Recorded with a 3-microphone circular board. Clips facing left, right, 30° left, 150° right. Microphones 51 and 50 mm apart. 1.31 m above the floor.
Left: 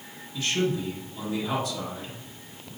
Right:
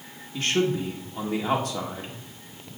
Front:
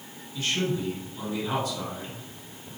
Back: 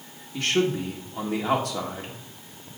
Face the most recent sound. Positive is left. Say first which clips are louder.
# right 2 dB, back 4 dB
turn(degrees=-125)